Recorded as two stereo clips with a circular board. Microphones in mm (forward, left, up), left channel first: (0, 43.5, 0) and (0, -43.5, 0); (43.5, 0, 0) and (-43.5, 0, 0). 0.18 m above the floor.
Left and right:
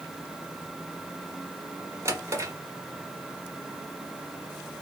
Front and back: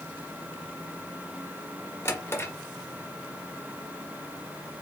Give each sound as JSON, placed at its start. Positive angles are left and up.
{"t": 2.0, "sound": "a drawer", "azimuth_deg": -50, "distance_m": 1.2}